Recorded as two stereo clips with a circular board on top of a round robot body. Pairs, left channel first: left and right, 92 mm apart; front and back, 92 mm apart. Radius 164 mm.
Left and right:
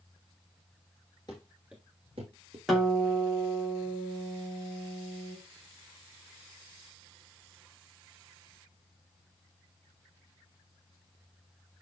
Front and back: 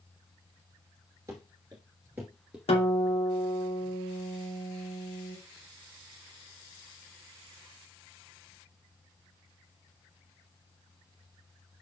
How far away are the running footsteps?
About 0.9 m.